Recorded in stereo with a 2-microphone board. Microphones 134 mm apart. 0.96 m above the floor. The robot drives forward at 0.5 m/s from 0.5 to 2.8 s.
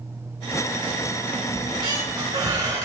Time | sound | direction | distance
1.6 | a squeak | 35° right (ahead or behind) | 2.5 m